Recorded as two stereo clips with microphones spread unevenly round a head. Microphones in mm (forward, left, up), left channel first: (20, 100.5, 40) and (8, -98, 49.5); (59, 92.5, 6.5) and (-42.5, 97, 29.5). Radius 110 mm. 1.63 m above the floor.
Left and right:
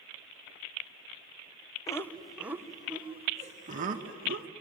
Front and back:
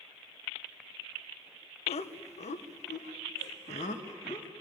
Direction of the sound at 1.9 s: 10° left.